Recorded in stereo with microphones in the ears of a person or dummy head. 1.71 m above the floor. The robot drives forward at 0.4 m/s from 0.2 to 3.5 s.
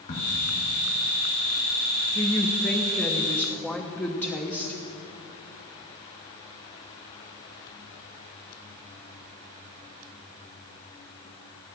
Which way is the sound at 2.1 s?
10° left (ahead or behind).